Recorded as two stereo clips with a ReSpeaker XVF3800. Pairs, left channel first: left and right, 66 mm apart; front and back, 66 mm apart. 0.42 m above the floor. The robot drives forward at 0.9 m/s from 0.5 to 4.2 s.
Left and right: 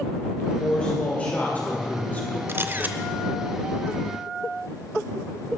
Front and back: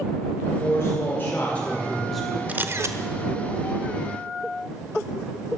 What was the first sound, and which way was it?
A man speaking, 25° left.